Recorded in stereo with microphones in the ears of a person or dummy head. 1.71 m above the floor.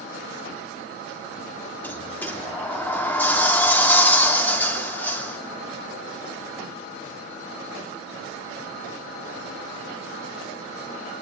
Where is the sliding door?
15° left (ahead or behind), 3 m.